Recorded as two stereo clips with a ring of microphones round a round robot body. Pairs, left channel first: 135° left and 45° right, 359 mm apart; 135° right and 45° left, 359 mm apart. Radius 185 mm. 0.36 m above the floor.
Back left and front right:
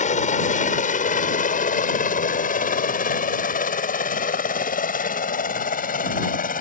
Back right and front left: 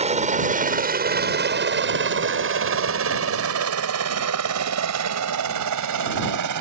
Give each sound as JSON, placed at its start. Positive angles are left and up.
{"t": 0.0, "sound": "a helicopter", "azimuth_deg": 95}